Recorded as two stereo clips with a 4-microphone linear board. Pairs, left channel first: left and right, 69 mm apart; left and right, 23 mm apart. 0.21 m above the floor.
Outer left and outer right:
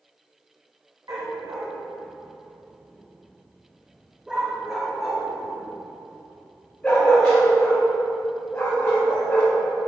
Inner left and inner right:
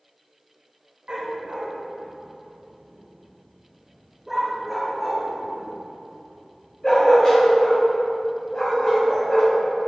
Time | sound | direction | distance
1.1 | a dog barking | 60° right (ahead or behind) | 4 m